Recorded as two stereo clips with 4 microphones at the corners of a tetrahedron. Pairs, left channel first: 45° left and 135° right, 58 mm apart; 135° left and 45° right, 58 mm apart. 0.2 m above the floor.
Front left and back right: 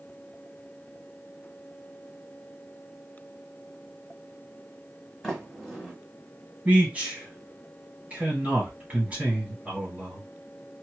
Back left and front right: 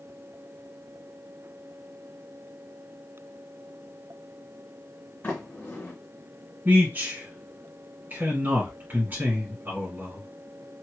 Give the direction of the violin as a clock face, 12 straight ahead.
I don't hear a violin.